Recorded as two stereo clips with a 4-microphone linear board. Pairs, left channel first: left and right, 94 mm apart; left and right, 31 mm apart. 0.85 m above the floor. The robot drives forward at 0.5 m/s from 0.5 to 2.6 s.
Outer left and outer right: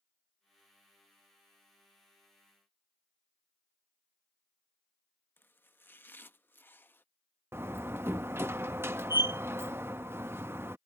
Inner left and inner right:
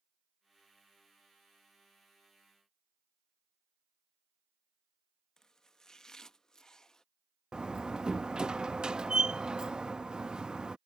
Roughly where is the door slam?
Right.